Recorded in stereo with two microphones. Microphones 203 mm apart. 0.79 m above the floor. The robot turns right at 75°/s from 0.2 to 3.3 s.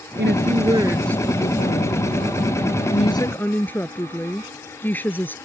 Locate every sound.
0.2 s a woman speaking: 60° right; by 5.3 s 170° left